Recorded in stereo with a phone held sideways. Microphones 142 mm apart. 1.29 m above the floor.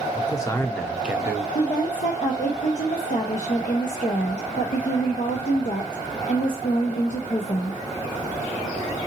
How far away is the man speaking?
About 0.9 m.